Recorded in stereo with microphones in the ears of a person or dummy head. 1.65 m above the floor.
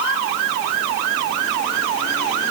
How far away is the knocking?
I don't hear knocking.